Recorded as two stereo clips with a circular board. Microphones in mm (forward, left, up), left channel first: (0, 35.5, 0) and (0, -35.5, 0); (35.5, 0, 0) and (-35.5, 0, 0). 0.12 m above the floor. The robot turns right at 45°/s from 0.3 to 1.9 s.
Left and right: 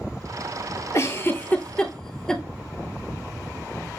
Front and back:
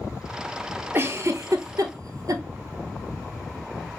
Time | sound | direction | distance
0.9 | a giggle | 130° left | 0.6 m